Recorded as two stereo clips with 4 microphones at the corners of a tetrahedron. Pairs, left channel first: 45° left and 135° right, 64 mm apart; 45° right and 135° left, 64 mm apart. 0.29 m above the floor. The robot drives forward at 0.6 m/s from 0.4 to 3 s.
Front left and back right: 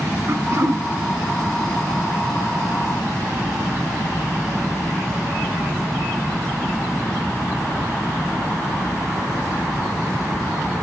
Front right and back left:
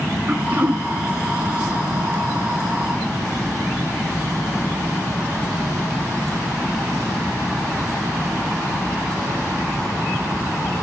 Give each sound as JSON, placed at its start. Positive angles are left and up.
{"t": 0.3, "sound": "throat clearing", "azimuth_deg": -170, "distance_m": 1.0}